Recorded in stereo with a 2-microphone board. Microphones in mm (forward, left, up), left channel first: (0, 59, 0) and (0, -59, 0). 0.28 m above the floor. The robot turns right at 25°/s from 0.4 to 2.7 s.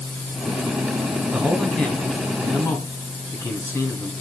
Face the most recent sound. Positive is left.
turn(degrees=30)